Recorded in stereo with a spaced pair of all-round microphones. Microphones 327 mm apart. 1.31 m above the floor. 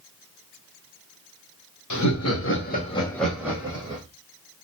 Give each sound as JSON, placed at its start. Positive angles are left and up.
{"t": 1.9, "sound": "laughter", "side_deg": 65, "distance_m": 1.0}